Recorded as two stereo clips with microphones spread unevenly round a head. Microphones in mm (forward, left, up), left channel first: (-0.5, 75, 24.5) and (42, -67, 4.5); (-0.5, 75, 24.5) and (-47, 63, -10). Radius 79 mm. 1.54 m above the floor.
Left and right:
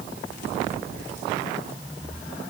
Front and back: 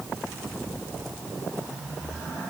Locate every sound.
Only background noise.